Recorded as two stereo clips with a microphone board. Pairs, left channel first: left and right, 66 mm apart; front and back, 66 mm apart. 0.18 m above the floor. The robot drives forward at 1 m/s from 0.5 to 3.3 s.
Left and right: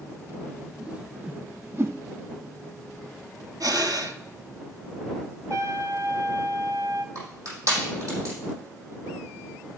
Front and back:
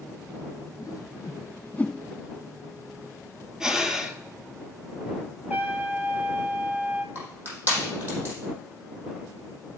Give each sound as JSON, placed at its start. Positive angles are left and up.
{"t": 0.8, "sound": "a whoosh", "azimuth_deg": -15, "distance_m": 1.3}
{"t": 3.6, "sound": "breathing", "azimuth_deg": -100, "distance_m": 0.8}
{"t": 5.5, "sound": "a trumpet", "azimuth_deg": -115, "distance_m": 0.8}
{"t": 7.2, "sound": "crushing", "azimuth_deg": -125, "distance_m": 5.0}